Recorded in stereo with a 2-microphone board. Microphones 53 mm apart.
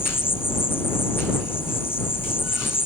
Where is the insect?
50° left (ahead or behind).